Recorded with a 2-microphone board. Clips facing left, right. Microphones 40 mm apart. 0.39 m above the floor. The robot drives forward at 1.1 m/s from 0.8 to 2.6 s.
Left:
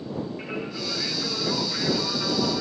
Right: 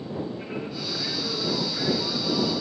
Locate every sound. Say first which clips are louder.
0.4 s singing: left 1 dB; 45° left (ahead or behind), 8.5 m; by 2.6 s 60° left (ahead or behind), 7.5 m